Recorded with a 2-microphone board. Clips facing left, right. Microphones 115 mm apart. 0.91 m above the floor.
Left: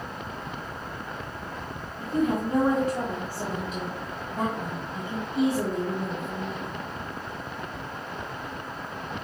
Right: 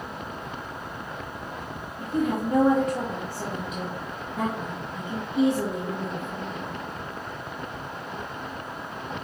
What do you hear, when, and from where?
2.0 s a woman speaking: 5° left (ahead or behind), 1.6 m